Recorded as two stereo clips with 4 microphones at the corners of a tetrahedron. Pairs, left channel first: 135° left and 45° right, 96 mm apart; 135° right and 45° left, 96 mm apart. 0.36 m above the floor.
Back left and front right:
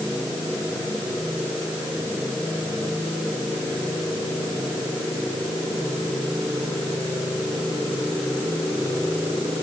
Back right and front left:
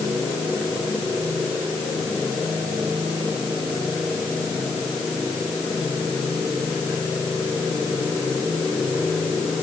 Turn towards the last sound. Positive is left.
No sound to turn to.